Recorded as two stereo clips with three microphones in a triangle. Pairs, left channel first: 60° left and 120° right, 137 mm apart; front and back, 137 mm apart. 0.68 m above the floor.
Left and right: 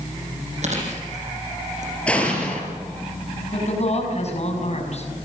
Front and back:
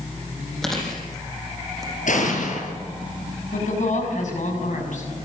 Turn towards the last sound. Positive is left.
turn(degrees=25)